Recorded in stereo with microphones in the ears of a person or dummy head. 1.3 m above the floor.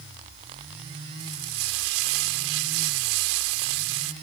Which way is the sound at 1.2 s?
80° right.